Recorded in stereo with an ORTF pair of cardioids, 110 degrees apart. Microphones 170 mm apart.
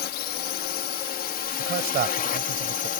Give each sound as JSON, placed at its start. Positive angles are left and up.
{"t": 0.0, "sound": "a drone", "azimuth_deg": 65}
{"t": 1.6, "sound": "a man speaking", "azimuth_deg": -60}